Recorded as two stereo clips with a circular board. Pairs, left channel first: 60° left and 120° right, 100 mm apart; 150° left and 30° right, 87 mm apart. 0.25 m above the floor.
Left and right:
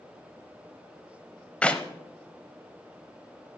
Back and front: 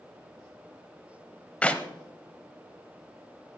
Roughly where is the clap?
Left.